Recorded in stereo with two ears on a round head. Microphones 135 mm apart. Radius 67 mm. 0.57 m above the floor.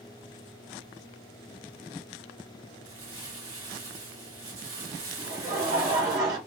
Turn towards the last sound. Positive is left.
turn(degrees=-55)  # may be behind; listen again after turning